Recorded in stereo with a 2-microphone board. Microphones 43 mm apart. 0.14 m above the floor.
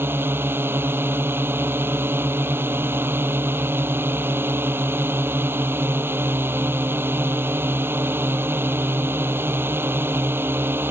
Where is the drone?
65° right (ahead or behind).